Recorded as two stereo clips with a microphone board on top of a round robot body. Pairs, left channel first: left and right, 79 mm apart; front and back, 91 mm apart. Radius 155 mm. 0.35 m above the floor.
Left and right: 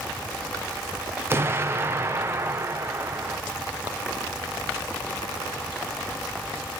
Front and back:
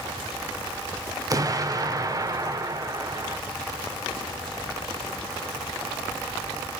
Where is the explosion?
145° right, 1.5 m.